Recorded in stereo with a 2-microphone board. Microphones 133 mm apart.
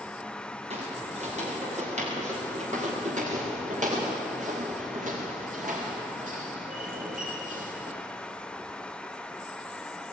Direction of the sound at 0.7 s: 55° right (ahead or behind).